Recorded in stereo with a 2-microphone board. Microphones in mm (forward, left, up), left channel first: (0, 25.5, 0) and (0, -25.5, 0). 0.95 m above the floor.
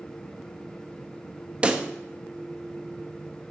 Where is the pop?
25° right (ahead or behind), 1.0 m.